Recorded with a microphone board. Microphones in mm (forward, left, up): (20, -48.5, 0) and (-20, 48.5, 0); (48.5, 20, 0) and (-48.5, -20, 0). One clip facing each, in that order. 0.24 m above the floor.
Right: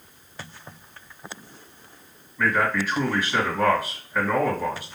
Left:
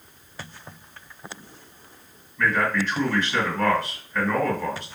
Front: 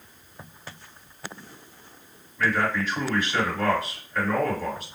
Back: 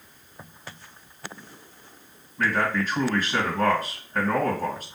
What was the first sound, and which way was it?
A man speaking, 140° right.